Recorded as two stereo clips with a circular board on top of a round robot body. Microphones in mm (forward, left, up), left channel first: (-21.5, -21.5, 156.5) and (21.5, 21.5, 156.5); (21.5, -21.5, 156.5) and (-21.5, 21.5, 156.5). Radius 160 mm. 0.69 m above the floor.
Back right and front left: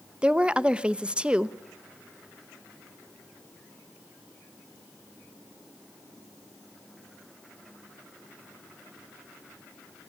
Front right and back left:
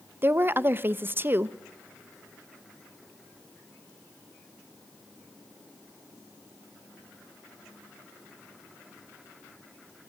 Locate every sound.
0.2 s a woman speaking: 110° left, 1.1 m